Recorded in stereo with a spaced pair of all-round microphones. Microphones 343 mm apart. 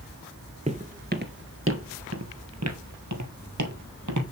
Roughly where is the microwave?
I don't hear a microwave.